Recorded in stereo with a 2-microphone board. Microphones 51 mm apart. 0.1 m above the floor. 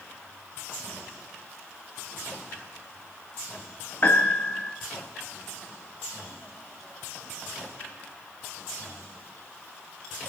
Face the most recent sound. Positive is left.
turn(degrees=45)  # may be behind; listen again after turning